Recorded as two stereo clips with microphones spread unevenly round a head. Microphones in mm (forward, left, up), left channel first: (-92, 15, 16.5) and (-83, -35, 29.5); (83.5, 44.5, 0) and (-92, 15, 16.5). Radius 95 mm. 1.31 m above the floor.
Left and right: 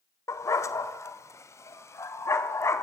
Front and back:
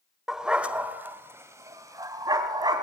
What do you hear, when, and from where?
0.3 s a dog barking: 105° left, 1.5 m; by 2.9 s 125° left, 3 m